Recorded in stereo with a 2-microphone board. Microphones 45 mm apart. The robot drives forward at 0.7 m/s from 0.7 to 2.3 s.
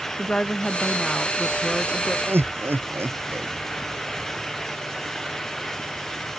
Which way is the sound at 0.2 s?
20° left (ahead or behind).